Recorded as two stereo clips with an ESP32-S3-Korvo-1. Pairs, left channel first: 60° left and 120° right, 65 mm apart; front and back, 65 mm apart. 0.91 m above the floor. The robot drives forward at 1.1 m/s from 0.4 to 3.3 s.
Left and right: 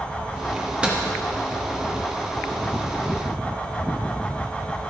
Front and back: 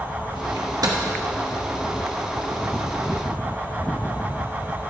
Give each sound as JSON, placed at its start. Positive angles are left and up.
{"t": 0.6, "sound": "a microwave", "azimuth_deg": 160, "distance_m": 0.8}